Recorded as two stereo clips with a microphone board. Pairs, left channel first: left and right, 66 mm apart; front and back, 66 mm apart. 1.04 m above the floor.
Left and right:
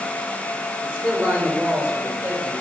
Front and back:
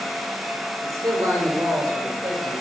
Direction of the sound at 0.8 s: 150° right.